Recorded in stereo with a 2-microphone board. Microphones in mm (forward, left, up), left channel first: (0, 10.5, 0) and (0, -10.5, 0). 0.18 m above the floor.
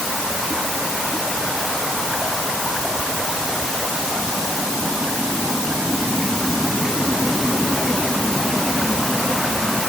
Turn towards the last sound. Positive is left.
No sound to turn to.